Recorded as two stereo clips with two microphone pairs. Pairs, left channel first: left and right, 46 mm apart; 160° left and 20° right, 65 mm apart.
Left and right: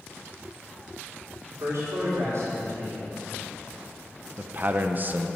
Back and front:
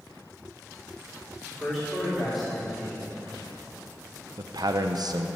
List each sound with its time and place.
1.4 s a man speaking: 110° right, 4.5 m
4.4 s a man speaking: 40° right, 0.9 m